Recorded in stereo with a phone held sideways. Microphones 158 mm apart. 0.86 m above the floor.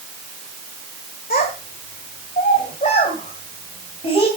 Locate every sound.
1.3 s a child speaking: 75° left (ahead or behind), 2.5 m; by 4.3 s 40° left (ahead or behind), 3.5 m